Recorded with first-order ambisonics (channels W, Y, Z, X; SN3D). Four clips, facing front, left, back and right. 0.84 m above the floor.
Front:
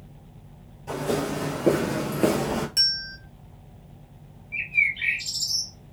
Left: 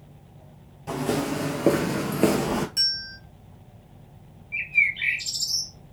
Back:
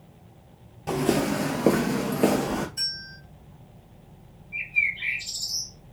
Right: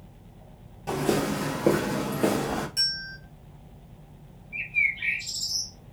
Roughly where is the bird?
Ahead left.